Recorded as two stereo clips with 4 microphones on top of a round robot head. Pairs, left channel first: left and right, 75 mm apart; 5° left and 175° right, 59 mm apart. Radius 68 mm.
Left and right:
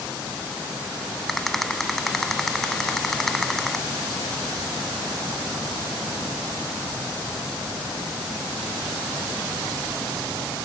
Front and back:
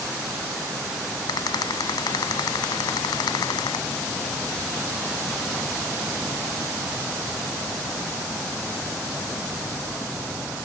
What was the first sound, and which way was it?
A rattle, 5° left.